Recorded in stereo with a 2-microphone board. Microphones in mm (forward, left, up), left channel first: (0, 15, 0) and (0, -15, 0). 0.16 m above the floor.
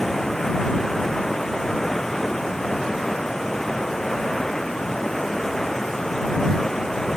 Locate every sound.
0.0 s running water: 15° left (ahead or behind)